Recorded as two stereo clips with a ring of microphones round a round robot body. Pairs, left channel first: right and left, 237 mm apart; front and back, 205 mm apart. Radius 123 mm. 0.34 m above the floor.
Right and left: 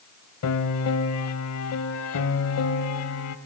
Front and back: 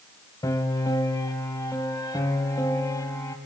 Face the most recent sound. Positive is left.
turn(degrees=-75)